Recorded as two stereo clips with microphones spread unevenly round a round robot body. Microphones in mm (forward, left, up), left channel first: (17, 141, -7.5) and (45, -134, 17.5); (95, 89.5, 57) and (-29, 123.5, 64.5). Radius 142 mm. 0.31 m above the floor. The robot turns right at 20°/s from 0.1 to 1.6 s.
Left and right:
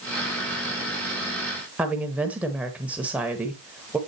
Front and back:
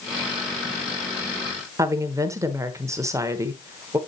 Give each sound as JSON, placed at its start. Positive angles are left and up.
{"t": 1.8, "sound": "a woman speaking", "azimuth_deg": -175, "distance_m": 1.0}